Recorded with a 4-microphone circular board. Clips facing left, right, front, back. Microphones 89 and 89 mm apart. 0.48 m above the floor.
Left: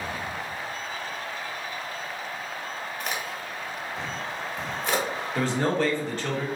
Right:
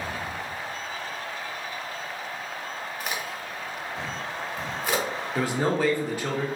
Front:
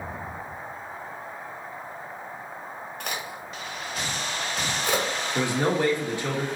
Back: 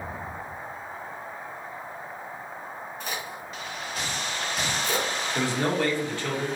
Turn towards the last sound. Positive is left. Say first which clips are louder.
# even, front 2 dB
turn(degrees=-35)